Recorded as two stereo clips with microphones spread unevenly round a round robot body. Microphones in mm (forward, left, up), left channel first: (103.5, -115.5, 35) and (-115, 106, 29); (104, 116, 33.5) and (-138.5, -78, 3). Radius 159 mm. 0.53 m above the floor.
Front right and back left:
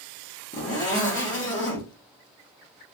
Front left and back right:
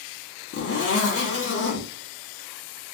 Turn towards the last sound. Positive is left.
turn(degrees=5)